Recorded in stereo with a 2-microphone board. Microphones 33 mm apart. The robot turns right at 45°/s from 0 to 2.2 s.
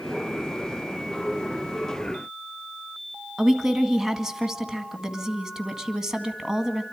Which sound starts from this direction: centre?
A woman speaking, at 3.4 s.